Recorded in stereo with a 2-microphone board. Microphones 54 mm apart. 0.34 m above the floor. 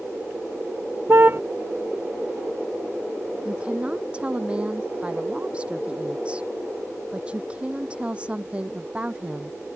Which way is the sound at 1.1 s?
40° right (ahead or behind).